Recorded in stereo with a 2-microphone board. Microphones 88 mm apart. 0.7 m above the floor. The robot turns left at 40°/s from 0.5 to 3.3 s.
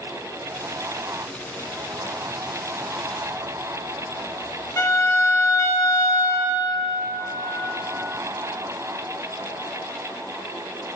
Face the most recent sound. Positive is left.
turn(degrees=35)  # may be behind; listen again after turning